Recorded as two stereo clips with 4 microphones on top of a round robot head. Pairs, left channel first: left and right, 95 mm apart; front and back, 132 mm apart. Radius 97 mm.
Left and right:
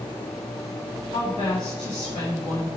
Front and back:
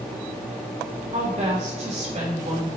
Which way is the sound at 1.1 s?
145° left.